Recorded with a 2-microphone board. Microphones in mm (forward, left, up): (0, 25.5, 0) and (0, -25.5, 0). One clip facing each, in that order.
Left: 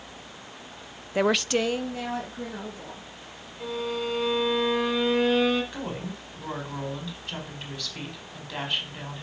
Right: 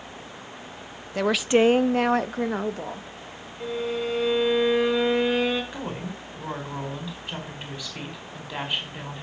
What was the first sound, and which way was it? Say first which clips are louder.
A woman speaking: right 3 dB; 20° left (ahead or behind).